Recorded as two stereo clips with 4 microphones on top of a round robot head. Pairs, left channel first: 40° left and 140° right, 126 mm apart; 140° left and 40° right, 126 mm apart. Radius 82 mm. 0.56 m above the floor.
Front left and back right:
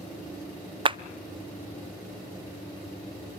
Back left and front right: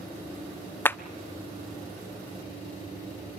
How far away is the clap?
About 0.5 m.